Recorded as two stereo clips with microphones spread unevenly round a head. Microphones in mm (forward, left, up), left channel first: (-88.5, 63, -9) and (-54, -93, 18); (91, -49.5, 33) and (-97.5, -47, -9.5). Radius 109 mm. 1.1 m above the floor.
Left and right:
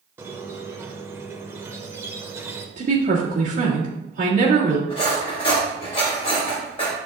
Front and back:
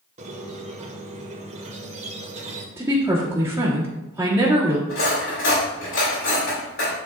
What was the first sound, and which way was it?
A squeak, 130° right.